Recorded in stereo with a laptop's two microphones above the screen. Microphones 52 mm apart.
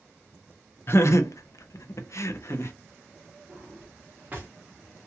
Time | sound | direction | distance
0.9 | laughter | 45° left (ahead or behind) | 0.5 m
3.5 | a drawer | 35° right (ahead or behind) | 1.0 m